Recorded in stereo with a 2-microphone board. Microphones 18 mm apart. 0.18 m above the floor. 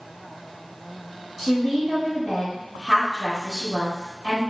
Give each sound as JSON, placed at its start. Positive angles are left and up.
{"t": 1.4, "sound": "a woman speaking", "side_deg": -25, "distance_m": 1.2}